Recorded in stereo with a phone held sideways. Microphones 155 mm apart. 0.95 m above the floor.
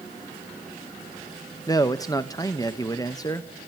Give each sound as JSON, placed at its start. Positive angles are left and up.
{"t": 1.7, "sound": "a man speaking", "side_deg": 25, "distance_m": 0.8}